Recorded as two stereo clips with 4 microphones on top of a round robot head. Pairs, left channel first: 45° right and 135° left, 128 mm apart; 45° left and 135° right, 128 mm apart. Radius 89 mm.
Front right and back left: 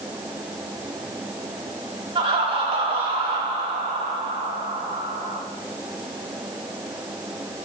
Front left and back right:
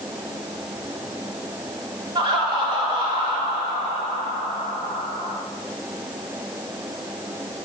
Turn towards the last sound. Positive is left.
turn(degrees=175)